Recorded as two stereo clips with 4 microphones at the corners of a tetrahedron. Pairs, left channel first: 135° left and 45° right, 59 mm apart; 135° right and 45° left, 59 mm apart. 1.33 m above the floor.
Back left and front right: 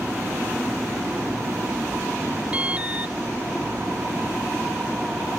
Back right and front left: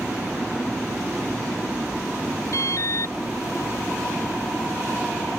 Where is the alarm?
110° right.